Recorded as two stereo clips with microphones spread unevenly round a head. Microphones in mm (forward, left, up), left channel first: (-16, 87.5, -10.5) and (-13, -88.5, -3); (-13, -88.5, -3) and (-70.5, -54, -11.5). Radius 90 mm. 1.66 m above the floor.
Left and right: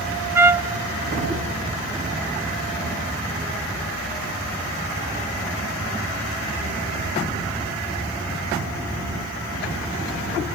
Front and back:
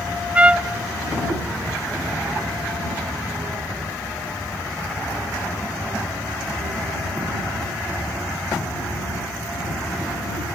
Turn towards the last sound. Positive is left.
turn(degrees=-145)